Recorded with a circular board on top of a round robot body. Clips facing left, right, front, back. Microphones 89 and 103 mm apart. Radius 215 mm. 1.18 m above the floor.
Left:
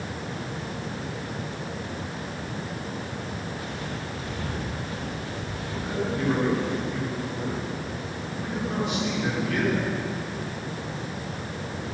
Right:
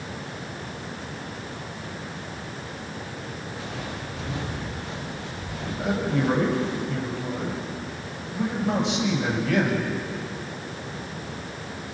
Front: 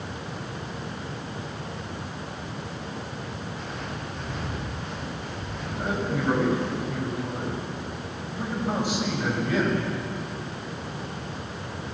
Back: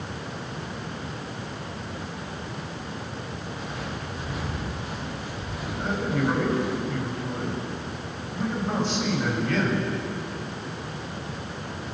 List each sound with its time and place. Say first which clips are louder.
3.6 s footsteps: even, back 1 dB; 95° right, 7.5 m; by 6.8 s 105° right, 8.5 m
5.8 s a man speaking: right 3 dB, back 1 dB; 80° right, 6.5 m